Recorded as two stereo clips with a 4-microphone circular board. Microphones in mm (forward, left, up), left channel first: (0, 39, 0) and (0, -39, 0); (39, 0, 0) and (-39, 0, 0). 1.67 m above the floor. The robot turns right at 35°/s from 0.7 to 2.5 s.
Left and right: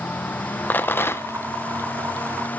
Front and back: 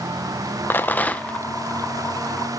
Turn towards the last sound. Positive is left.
turn(degrees=105)